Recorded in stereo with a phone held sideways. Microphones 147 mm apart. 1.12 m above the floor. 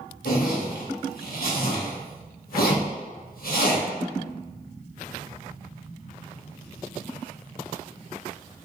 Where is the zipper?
70° left (ahead or behind), 1.1 m.